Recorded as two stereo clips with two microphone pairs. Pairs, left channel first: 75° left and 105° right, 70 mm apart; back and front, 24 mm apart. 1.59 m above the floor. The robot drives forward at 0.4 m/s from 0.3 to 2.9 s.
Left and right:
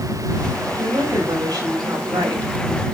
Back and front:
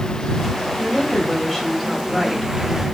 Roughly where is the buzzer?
I don't hear a buzzer.